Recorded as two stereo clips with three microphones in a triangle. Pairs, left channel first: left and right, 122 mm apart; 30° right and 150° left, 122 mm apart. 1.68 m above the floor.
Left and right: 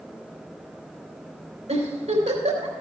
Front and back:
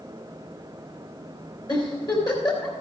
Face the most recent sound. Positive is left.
turn(degrees=-80)